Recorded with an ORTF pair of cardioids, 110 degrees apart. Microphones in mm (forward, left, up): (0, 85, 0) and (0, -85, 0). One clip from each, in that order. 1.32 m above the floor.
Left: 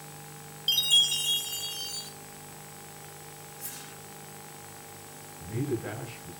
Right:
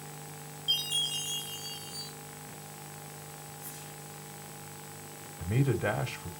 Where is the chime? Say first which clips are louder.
Left 7 dB; 60° left, 5 m.